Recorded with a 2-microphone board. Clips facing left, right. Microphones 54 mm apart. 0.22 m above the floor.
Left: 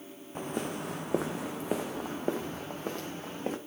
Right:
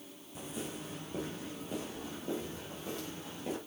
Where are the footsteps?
45° left (ahead or behind), 1.0 m; by 3.6 s 50° left (ahead or behind), 2 m.